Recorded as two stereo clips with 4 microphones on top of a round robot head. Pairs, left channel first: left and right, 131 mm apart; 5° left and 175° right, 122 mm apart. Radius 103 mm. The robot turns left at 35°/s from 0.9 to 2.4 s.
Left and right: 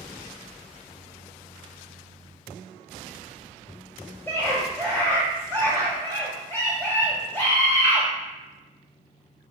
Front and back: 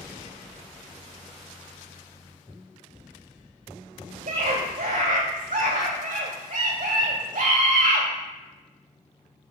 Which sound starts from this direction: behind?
A scream, at 4.3 s.